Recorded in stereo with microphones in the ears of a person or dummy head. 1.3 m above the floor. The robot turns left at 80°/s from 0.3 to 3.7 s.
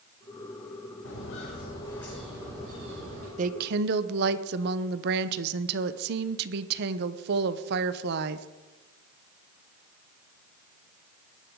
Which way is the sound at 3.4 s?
40° right (ahead or behind).